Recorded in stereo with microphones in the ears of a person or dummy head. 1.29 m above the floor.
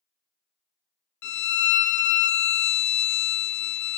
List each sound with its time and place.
1.2 s a violin: 65° left (ahead or behind), 0.6 m